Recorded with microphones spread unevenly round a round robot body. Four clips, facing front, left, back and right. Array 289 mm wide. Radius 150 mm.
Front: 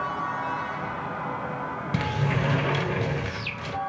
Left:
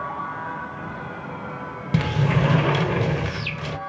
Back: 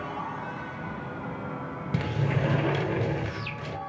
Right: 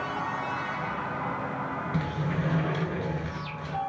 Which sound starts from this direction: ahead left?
A sliding door, at 1.9 s.